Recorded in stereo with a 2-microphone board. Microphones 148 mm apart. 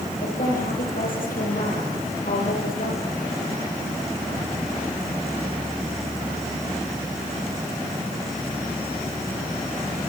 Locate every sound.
0.2 s a woman speaking: 70° left (ahead or behind), 8.5 m